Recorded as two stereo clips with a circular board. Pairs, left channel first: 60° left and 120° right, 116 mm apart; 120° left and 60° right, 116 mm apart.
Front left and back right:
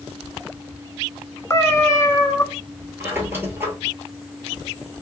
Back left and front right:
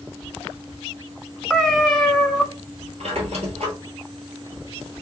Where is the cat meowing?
40° left, 0.7 m.